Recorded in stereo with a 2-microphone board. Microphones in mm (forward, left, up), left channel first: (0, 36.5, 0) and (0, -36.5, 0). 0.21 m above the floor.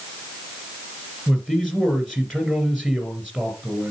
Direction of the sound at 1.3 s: 10° left (ahead or behind).